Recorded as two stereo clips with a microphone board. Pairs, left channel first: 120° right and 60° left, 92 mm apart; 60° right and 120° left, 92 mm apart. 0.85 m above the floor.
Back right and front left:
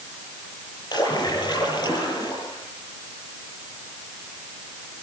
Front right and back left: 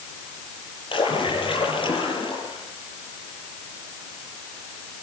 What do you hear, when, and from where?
0.9 s a splash: 80° right, 9 m